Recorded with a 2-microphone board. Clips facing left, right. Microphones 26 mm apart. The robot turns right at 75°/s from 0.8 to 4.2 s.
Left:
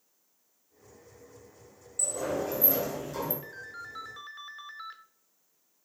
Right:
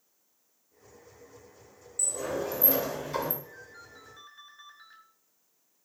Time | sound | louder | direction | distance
2.0 | a sliding door | left 1 dB | 170° left | 2.5 m
3.4 | a ringtone | left 6 dB | 60° left | 1.0 m